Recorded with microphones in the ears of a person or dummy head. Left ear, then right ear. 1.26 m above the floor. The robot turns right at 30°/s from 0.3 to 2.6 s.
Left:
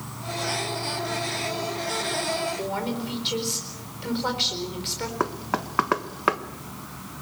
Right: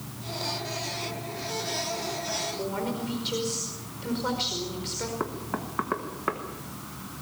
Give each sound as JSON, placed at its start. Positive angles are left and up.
{"t": 0.0, "sound": "an insect", "azimuth_deg": 85, "distance_m": 2.0}
{"t": 2.6, "sound": "a woman speaking", "side_deg": 25, "distance_m": 4.5}
{"t": 5.2, "sound": "knocking", "side_deg": 80, "distance_m": 1.2}